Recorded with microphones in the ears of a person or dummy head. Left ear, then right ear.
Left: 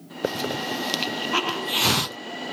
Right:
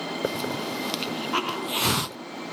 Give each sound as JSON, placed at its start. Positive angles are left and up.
{"t": 0.2, "sound": "a hiss", "side_deg": 5}